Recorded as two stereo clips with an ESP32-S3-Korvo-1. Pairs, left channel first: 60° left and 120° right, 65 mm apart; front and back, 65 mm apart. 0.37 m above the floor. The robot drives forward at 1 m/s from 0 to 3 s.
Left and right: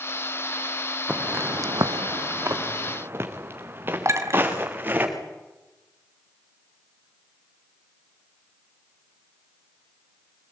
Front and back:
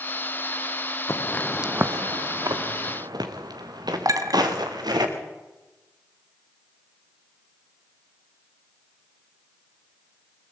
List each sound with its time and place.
1.1 s footsteps: 45° right, 1.5 m; by 5.0 s straight behind, 5.5 m
4.0 s a clink: 160° right, 1.9 m